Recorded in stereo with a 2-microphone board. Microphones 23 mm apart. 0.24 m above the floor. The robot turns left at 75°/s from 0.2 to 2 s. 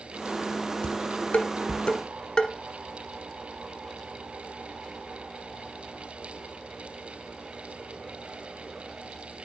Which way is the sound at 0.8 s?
55° left (ahead or behind).